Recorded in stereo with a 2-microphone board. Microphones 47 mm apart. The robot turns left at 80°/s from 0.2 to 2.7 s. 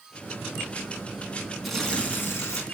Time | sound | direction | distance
1.6 | tearing paper | straight behind | 3.5 m